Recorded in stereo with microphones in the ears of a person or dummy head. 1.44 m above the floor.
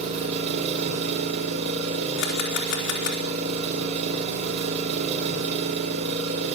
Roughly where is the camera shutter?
Left.